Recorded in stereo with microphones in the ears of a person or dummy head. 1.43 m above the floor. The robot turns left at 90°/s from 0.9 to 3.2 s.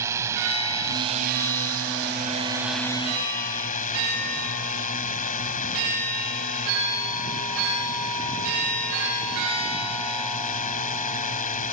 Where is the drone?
15° right; by 11.7 s 135° left.